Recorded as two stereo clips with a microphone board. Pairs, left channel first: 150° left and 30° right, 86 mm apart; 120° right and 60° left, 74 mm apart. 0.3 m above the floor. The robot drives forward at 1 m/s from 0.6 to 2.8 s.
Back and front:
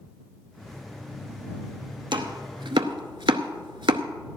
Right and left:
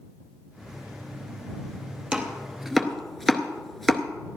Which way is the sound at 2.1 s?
15° right.